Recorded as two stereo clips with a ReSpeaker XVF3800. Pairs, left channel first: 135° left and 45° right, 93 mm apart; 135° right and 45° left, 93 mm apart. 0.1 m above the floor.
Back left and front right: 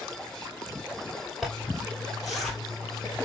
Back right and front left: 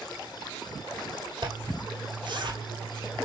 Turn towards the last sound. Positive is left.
turn(degrees=45)